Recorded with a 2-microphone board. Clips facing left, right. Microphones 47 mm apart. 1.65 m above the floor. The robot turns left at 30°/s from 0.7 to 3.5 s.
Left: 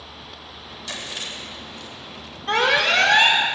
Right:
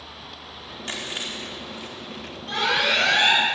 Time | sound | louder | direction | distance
0.9 | chewing | right 1 dB | 40° right (ahead or behind) | 4.5 m
2.5 | an alarm | left 4 dB | 55° left (ahead or behind) | 5 m